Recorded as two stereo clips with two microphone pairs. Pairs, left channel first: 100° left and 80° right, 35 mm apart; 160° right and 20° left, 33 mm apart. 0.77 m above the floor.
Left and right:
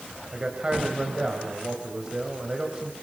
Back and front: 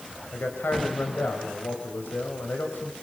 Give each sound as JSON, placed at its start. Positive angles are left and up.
{"t": 0.3, "sound": "a man speaking", "azimuth_deg": -150, "distance_m": 3.5}